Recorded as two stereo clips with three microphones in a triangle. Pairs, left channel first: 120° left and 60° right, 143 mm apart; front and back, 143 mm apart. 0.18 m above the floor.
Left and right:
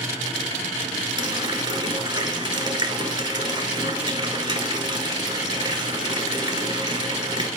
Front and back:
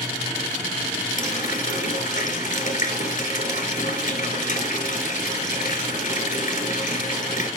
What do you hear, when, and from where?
1.2 s a running tap: 5° right, 1.6 m